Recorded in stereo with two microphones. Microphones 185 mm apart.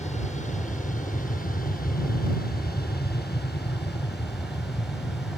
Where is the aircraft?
40° left (ahead or behind); by 5.4 s 70° left (ahead or behind).